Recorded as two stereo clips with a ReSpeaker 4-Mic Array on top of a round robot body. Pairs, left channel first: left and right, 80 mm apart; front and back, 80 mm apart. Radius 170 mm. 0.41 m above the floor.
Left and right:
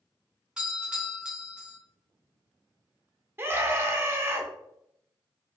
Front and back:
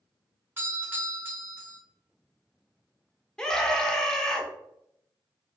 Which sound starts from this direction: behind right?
A doorbell, at 0.6 s.